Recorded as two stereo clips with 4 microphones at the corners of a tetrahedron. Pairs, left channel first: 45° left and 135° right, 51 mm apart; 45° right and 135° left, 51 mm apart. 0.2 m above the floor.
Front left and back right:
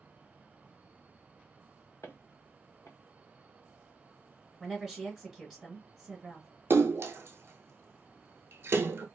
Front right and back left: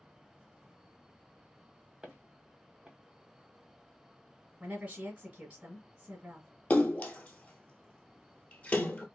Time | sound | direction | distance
2.0 | footsteps | 60° left | 1.6 m
4.6 | a woman speaking | 140° left | 1.5 m
6.7 | a splash | 105° right | 0.6 m